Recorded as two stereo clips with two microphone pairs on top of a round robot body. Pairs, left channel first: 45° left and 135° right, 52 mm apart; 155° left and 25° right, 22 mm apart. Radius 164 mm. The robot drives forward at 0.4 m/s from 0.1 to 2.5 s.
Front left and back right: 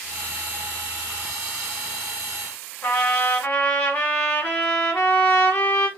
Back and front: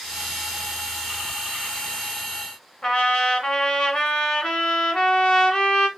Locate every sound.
2.8 s a trumpet: 110° left, 1.3 m